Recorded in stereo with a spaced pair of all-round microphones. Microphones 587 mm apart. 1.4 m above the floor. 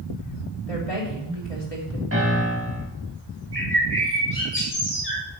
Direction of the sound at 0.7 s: 70° left (ahead or behind).